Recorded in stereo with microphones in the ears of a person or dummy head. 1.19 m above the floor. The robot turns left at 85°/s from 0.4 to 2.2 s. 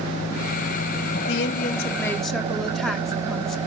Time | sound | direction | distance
0.0 | an engine running | 120° left | 4 m
1.3 | a woman speaking | 85° left | 1.8 m